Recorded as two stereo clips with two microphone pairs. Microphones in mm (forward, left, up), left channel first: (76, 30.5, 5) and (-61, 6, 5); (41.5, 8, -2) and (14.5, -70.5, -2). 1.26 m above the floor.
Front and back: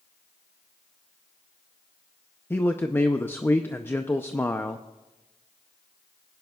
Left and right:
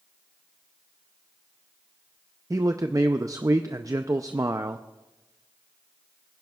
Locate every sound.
2.5 s a man speaking: 60° right, 0.5 m